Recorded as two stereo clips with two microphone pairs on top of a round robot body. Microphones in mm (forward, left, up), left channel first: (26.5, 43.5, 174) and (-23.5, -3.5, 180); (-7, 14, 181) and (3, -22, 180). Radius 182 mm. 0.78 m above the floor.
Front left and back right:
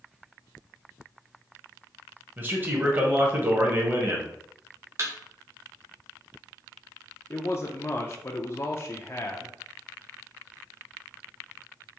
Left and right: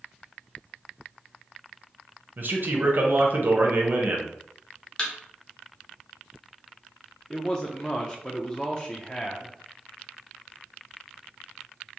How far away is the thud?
About 0.7 m.